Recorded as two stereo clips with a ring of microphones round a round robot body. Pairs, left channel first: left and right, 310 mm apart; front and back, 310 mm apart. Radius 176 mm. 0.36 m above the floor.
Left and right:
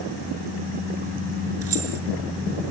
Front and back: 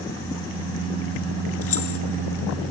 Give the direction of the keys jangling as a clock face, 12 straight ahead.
2 o'clock.